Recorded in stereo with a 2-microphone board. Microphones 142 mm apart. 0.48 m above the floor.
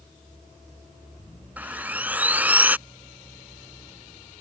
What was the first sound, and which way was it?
Sawing, 10° right (ahead or behind).